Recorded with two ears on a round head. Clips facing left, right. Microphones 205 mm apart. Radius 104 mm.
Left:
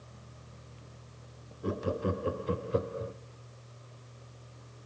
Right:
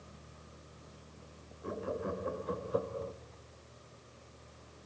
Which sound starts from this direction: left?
Laughter, at 1.6 s.